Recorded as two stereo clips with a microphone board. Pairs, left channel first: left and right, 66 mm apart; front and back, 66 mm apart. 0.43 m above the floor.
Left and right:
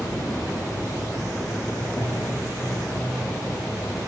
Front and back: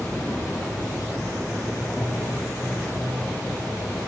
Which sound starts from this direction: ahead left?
An insect, at 0.0 s.